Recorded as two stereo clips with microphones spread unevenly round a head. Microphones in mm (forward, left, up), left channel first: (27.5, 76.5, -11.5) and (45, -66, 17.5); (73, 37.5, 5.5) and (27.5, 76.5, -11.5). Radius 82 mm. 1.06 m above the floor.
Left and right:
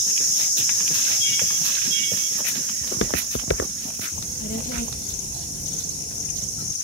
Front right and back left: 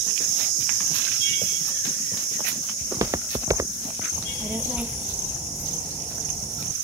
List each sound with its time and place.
2.8 s footsteps: 115° left; by 4.0 s 110° left
4.1 s a child speaking: 75° left